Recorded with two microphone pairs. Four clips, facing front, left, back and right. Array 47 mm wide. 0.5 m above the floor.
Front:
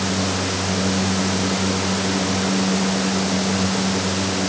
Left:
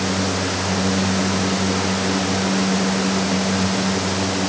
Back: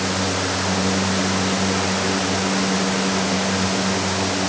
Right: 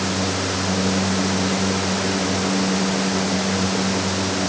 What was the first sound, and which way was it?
Only background noise.